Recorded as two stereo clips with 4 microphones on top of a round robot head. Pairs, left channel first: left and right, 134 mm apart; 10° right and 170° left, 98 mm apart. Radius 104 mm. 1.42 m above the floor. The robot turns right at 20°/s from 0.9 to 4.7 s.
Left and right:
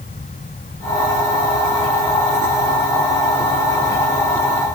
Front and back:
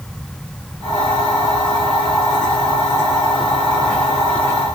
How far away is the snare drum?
No snare drum in this recording.